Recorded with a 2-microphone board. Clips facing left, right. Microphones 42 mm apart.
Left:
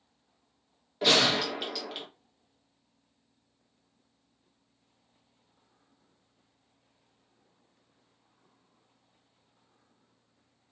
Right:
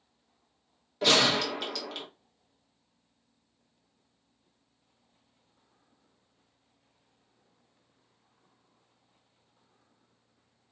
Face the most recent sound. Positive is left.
turn(degrees=10)  # may be behind; listen again after turning